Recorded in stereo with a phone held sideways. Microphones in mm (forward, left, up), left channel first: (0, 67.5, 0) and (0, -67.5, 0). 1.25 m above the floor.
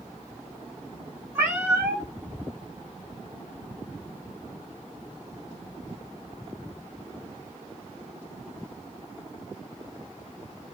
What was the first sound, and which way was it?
A cat meowing, 20° right (ahead or behind).